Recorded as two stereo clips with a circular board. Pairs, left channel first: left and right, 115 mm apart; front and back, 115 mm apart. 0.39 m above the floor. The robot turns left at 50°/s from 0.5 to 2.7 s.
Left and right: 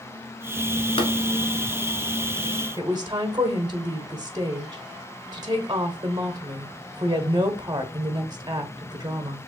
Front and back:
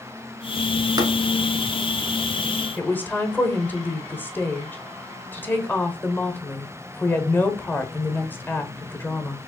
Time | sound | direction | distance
1.0 | tapping | 125° left | 1.2 m
2.8 | a woman speaking | 65° right | 1.0 m